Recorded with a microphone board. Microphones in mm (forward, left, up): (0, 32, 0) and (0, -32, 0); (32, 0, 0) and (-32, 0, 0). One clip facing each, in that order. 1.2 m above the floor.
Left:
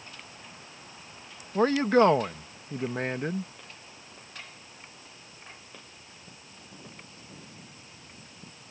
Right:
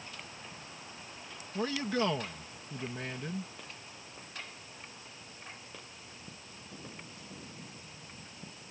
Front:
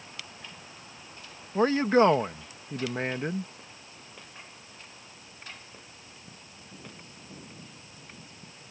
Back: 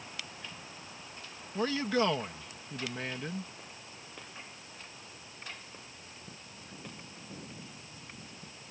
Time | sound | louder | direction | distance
1.6 | a man speaking | left 11 dB, front 8 dB | 55° left | ?